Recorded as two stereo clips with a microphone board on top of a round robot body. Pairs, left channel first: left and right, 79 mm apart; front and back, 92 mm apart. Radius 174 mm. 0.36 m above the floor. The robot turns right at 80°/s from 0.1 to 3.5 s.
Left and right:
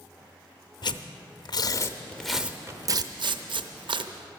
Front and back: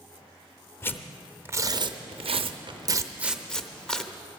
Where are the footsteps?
I don't hear footsteps.